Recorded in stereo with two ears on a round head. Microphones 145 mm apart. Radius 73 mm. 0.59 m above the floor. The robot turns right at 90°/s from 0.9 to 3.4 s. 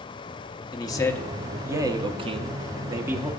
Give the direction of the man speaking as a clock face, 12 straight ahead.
7 o'clock.